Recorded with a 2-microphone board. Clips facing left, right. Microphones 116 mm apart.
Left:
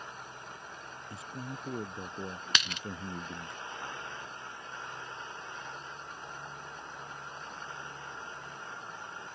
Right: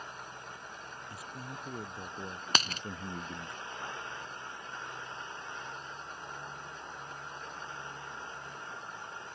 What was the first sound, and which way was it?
A man speaking, 25° left (ahead or behind).